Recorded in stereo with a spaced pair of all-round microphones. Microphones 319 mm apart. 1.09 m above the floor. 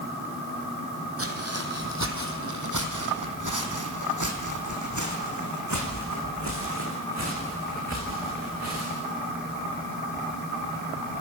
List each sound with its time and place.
1.2 s footsteps: 45° right (ahead or behind), 3 m; by 9.1 s 50° right (ahead or behind), 7 m